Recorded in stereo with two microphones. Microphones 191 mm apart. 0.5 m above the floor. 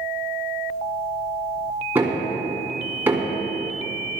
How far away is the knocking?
About 3 m.